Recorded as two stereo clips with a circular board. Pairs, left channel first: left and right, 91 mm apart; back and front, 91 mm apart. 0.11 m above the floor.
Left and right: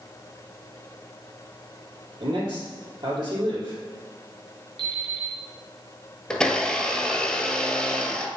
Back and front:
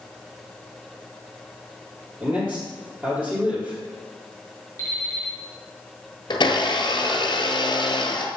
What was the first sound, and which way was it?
A man speaking, 70° right.